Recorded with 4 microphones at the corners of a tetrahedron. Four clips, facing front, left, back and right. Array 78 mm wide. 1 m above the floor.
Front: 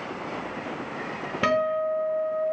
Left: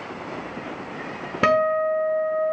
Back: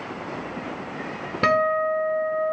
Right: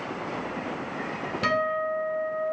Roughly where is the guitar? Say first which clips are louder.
Left 7 dB, back 4 dB; left.